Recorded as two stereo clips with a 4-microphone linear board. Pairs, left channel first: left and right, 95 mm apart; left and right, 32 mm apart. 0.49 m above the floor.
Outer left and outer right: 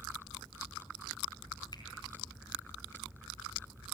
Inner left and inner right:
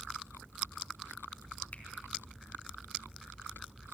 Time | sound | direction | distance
1.7 | a finger snap | 50° left (ahead or behind) | 4.5 m